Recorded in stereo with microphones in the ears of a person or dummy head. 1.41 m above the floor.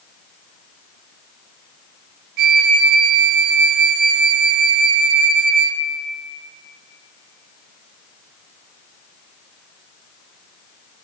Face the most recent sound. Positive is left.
turn(degrees=-50)  # may be behind; listen again after turning